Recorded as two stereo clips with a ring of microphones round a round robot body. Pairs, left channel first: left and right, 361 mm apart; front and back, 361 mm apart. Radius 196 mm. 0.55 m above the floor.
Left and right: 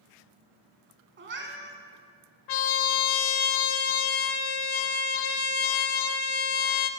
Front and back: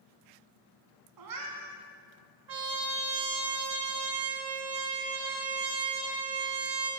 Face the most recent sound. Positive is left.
turn(degrees=120)